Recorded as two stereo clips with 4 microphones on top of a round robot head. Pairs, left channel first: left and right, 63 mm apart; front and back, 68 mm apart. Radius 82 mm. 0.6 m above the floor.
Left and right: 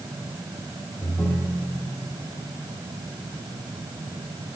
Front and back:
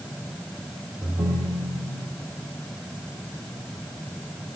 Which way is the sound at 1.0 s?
175° right.